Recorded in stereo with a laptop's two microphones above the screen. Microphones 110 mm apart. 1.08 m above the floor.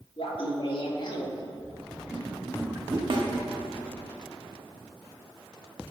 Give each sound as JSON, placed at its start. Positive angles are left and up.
{"t": 0.2, "sound": "laughter", "side_deg": 60, "distance_m": 2.0}
{"t": 3.1, "sound": "a snare drum", "side_deg": -50, "distance_m": 1.6}